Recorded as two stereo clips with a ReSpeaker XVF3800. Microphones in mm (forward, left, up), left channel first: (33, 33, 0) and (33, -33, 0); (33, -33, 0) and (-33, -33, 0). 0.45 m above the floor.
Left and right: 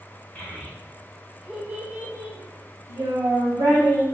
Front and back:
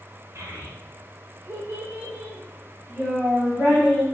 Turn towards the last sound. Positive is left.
turn(degrees=-75)